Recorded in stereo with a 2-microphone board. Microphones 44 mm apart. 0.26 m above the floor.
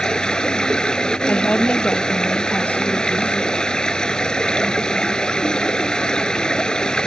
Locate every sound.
0.0 s running water: 20° left (ahead or behind)
1.3 s a woman speaking: 35° left (ahead or behind)